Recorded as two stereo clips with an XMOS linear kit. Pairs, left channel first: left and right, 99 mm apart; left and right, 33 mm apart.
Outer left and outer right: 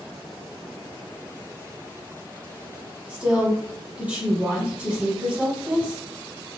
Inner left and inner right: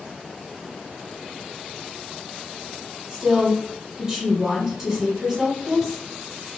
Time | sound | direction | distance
3.1 | a woman speaking | 15° right (ahead or behind) | 1.4 m